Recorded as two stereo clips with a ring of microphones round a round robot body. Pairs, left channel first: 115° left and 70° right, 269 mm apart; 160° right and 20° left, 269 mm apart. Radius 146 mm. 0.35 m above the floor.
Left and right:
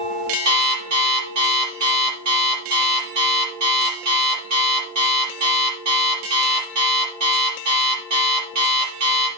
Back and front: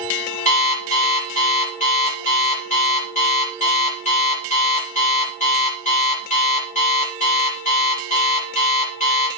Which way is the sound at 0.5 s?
90° right.